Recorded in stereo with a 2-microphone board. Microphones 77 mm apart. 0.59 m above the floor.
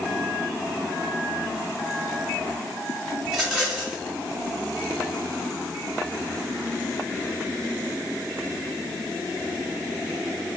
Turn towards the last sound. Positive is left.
turn(degrees=-5)  # may be behind; listen again after turning